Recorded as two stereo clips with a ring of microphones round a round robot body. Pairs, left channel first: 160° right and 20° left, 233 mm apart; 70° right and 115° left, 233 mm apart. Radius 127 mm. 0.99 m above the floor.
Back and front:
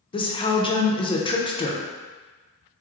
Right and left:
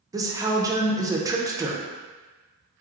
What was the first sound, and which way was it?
A woman speaking, 170° left.